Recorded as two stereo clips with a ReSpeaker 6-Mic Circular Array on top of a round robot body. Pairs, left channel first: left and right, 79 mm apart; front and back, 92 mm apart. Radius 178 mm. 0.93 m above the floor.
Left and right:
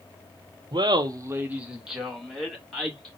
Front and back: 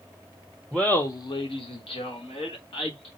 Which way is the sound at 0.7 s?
90° right.